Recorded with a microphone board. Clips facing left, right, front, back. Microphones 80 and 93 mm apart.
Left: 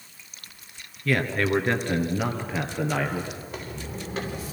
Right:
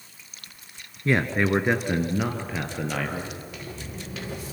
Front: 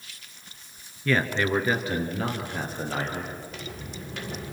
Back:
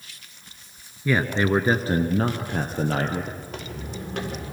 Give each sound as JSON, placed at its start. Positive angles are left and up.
{"t": 1.1, "sound": "a man speaking", "azimuth_deg": -115, "distance_m": 1.5}
{"t": 3.4, "sound": "footsteps", "azimuth_deg": 145, "distance_m": 7.0}